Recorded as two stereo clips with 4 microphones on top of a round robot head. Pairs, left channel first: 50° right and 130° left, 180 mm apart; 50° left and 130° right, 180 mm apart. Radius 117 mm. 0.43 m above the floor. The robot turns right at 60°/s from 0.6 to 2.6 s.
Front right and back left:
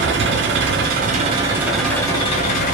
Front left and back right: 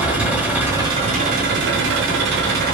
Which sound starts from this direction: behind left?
An engine running, at 0.0 s.